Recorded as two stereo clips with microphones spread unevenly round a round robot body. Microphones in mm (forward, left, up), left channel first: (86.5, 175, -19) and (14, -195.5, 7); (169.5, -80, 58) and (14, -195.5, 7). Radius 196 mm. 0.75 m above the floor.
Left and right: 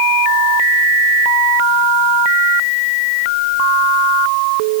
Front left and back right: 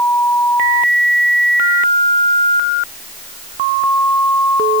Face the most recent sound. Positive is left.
No sound to turn to.